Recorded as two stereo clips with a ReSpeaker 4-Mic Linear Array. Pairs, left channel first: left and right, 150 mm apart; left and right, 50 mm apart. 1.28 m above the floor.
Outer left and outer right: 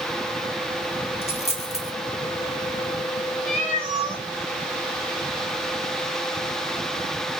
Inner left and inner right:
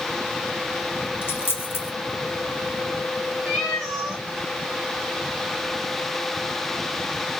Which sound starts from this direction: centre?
A cat meowing, at 3.5 s.